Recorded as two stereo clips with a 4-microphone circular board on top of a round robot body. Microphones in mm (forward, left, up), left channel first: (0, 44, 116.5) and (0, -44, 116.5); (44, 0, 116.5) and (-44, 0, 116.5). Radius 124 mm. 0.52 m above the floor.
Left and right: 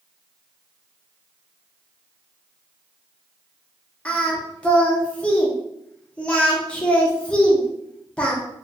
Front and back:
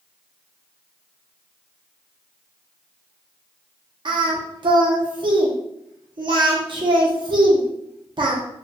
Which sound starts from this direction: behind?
Singing, at 4.0 s.